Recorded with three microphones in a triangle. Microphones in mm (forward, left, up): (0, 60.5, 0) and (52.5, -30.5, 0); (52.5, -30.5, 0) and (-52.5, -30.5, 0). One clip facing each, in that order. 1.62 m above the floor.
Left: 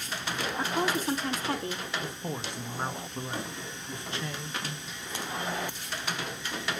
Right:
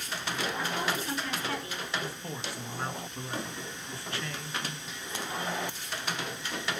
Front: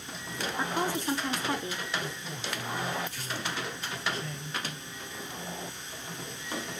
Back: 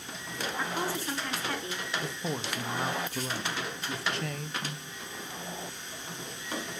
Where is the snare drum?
165° right, 7.5 m.